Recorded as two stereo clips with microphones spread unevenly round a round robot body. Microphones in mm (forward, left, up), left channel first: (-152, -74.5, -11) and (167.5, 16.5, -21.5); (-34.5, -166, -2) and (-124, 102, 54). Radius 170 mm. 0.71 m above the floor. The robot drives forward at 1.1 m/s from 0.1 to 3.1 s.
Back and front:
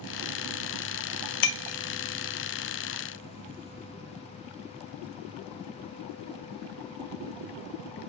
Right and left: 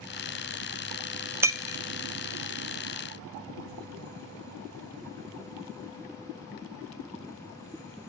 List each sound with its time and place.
1.4 s breaking glass: 165° right, 0.6 m; by 1.8 s 170° right, 1.0 m